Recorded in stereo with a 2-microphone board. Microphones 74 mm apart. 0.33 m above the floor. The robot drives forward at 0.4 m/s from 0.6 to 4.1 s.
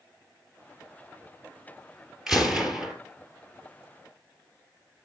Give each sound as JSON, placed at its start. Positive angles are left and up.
{"t": 2.3, "sound": "a gunshot", "side_deg": -5, "distance_m": 2.0}